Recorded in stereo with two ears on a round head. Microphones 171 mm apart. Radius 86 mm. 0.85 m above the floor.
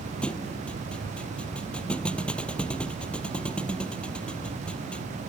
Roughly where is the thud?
Centre.